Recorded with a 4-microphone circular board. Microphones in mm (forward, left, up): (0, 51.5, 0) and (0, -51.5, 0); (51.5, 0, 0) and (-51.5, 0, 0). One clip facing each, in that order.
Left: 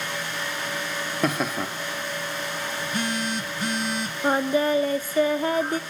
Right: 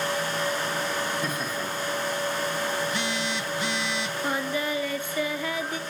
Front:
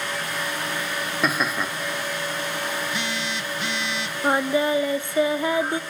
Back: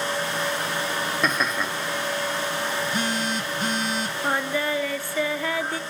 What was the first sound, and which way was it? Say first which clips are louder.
Laughter: left 5 dB, front 2 dB; 85° left.